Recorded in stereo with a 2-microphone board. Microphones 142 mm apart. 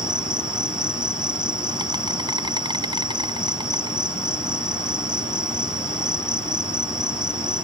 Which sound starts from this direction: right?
An insect, at 0.0 s.